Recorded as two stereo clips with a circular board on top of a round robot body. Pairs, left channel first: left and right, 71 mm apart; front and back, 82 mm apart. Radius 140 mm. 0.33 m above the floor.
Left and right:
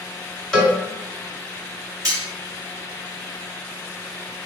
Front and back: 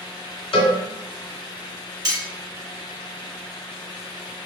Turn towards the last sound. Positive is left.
turn(degrees=-135)